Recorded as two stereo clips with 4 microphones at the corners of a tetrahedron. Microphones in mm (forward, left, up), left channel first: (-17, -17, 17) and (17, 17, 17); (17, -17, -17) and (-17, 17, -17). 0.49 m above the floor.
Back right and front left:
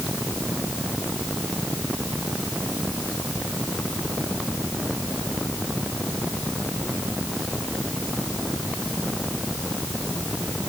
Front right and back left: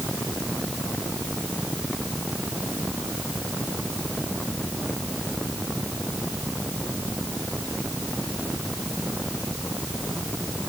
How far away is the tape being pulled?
I don't hear tape being pulled.